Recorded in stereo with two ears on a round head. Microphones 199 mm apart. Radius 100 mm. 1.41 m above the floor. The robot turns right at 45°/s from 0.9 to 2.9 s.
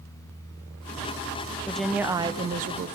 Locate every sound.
1.7 s a woman speaking: 175° left, 0.6 m; by 3.0 s 130° right, 0.6 m